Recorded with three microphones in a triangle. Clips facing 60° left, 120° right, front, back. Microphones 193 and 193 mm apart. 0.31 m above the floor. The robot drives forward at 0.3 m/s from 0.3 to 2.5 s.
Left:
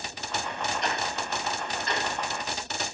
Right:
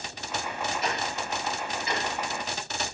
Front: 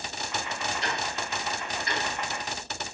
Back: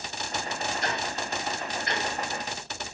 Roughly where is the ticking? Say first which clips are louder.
Even, back 1 dB; behind left.